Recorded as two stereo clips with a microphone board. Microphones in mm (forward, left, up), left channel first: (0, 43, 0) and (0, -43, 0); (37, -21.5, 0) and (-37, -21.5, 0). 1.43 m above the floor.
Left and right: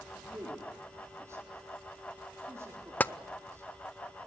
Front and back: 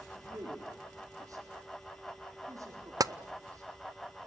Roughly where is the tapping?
Behind.